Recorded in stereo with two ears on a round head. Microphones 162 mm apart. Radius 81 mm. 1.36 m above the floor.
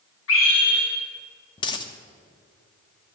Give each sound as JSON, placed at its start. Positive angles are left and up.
{"t": 0.3, "sound": "a scream", "side_deg": 85, "distance_m": 2.5}
{"t": 1.6, "sound": "a dropped coin", "side_deg": 25, "distance_m": 0.9}